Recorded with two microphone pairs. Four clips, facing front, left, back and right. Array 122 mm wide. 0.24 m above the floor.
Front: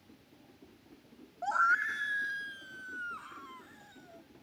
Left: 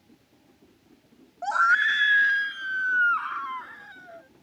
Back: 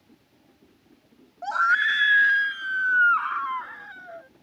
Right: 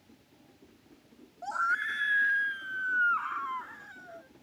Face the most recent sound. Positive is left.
turn(degrees=-175)